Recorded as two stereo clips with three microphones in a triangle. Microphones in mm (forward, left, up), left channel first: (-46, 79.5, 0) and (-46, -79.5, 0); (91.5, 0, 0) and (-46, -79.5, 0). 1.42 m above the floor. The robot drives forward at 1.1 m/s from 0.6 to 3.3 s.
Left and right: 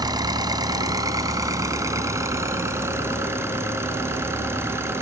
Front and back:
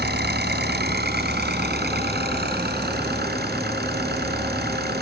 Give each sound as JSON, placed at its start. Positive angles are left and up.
{"t": 0.0, "sound": "an engine running", "azimuth_deg": -155}